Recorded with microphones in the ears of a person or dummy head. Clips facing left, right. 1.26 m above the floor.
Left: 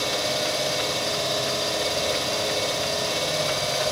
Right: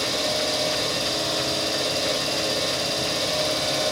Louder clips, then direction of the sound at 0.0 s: Even; 75° right (ahead or behind).